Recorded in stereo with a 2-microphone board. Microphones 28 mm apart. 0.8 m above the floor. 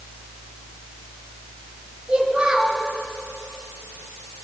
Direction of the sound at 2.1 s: 40° right (ahead or behind).